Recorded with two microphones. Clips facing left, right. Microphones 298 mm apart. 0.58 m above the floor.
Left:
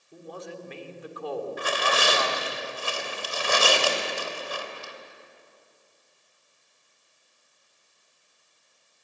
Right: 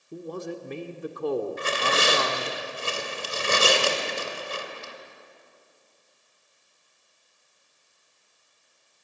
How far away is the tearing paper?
About 2.5 m.